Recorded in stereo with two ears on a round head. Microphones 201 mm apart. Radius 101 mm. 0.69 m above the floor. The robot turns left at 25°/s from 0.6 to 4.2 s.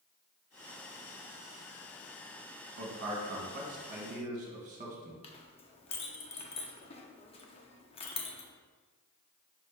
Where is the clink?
25° left (ahead or behind), 0.5 m.